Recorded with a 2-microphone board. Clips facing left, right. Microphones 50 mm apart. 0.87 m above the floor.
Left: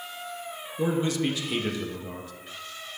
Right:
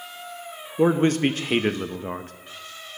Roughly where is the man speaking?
Right.